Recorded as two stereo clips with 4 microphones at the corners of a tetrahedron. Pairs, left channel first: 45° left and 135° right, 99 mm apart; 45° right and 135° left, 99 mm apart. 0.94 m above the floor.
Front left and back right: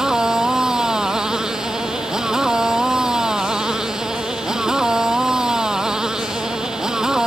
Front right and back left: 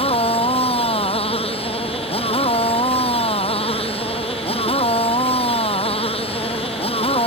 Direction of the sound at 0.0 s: 50° right.